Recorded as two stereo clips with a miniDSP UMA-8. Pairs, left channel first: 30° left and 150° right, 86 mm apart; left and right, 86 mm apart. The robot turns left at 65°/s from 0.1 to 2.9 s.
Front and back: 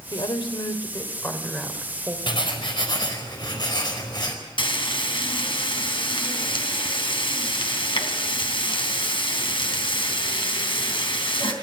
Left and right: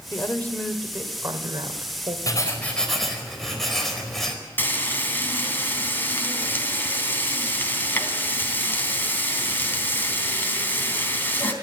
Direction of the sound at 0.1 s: 40° left.